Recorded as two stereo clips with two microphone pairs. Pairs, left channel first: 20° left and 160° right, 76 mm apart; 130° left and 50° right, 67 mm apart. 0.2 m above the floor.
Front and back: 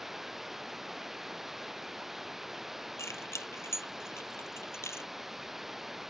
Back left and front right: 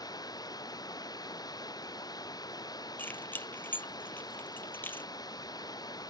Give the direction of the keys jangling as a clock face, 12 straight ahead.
10 o'clock.